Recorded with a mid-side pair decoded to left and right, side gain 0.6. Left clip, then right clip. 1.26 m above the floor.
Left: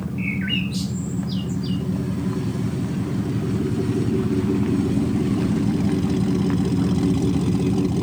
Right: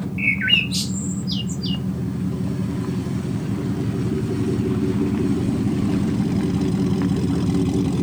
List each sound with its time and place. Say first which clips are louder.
0.2 s a bird: right 8 dB; 45° right, 1.2 m